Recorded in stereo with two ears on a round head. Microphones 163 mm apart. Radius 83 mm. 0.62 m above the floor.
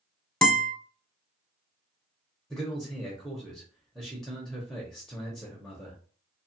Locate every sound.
0.4 s a guitar: 5° left (ahead or behind), 0.7 m
2.5 s a man speaking: centre (ahead or behind), 0.7 m